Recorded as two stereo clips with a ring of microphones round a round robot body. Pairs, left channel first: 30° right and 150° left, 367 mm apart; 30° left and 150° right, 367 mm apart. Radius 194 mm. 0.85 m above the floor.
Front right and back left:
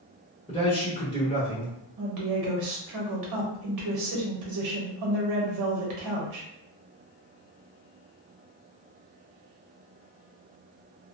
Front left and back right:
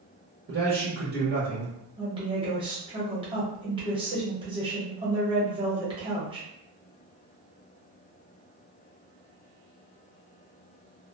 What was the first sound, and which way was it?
A man speaking, 100° right.